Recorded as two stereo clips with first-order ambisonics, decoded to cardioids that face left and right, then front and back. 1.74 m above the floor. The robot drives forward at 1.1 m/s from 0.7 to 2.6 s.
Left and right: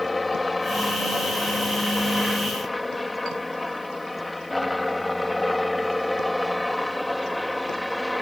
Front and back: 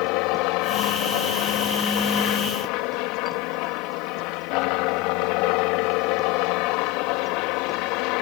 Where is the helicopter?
10° left; by 8.2 s straight ahead.